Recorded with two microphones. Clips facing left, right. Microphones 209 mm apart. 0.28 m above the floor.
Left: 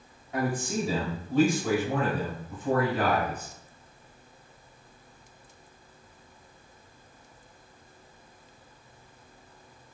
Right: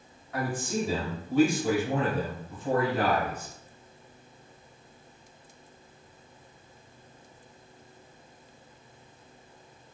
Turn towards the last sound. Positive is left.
turn(degrees=-50)  # may be behind; listen again after turning